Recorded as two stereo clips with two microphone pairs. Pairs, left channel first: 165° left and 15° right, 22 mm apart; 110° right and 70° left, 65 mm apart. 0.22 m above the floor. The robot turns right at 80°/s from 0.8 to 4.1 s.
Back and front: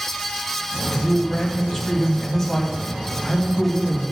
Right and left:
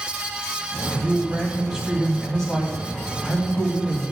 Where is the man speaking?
60° left, 1.7 m; by 4.0 s 50° right, 1.7 m.